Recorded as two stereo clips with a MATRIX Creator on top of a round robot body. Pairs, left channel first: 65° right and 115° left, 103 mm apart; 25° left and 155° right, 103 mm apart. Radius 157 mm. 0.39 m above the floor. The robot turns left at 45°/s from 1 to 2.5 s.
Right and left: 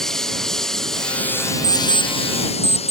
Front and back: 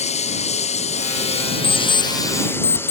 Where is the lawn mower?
20° left; by 2.9 s 45° right.